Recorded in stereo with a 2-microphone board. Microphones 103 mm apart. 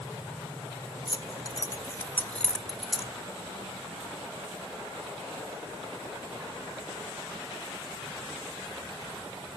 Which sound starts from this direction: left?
Keys jangling, at 1.1 s.